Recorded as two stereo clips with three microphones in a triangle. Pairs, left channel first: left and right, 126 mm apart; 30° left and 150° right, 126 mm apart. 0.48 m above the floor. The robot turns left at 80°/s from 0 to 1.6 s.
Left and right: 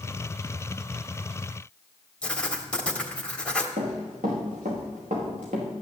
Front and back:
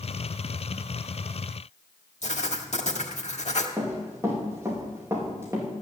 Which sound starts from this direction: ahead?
Writing, at 2.2 s.